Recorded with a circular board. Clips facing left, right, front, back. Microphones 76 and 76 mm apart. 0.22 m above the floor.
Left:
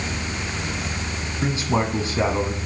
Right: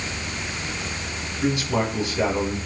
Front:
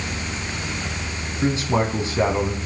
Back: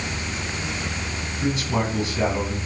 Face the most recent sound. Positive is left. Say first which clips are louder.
# even, front 3 dB
turn(degrees=45)